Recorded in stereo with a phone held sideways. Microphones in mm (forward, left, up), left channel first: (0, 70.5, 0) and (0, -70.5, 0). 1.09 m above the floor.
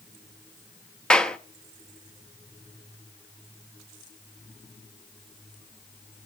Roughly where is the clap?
Centre.